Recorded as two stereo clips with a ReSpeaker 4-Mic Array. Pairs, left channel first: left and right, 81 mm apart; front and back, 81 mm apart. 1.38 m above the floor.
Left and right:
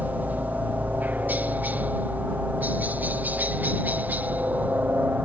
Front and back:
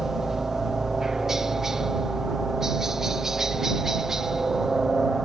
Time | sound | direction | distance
0.0 | a helicopter | 105° right | ?